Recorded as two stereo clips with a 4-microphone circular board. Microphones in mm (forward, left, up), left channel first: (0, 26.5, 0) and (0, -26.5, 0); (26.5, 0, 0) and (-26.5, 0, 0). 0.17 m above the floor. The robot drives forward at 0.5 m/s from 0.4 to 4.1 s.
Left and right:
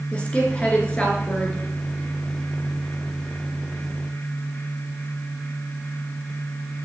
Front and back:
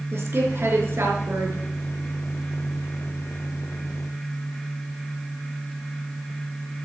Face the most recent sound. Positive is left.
turn(degrees=165)